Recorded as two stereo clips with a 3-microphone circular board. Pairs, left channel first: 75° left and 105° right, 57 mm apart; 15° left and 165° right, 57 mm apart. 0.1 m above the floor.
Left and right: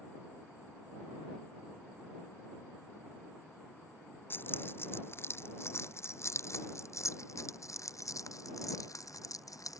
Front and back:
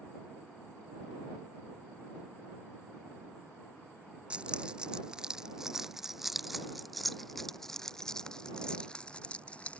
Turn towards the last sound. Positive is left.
turn(degrees=85)